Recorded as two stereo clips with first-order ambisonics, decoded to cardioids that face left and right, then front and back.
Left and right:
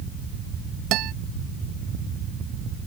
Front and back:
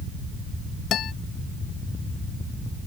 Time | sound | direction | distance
0.9 | a guitar | 55° right | ?